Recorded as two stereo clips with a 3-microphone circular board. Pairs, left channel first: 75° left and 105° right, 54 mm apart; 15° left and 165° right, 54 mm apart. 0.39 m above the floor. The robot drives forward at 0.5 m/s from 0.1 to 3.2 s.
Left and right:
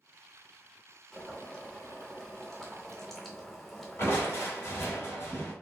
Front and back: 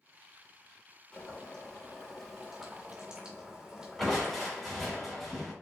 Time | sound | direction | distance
1.1 | boiling | 25° left | 1.4 m
4.0 | crushing | 100° left | 2.5 m